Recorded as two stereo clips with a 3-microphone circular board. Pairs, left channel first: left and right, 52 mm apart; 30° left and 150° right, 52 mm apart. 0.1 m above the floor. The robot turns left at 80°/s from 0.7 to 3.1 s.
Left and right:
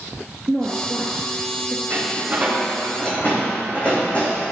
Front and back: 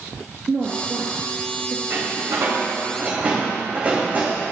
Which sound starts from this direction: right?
A door slam, at 1.9 s.